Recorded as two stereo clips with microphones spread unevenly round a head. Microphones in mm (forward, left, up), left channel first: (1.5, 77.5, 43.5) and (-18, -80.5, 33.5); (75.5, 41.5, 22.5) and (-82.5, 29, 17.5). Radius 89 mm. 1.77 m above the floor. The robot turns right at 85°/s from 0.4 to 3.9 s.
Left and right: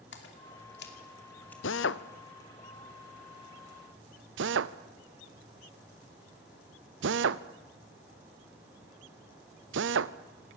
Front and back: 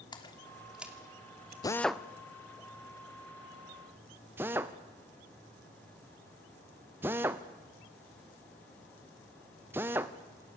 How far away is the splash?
About 2.5 m.